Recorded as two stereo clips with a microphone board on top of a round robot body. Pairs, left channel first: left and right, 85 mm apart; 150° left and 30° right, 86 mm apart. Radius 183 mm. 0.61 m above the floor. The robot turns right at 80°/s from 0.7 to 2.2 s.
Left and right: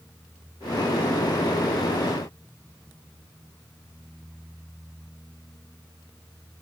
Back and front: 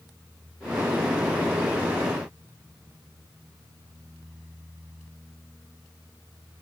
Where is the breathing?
I don't hear breathing.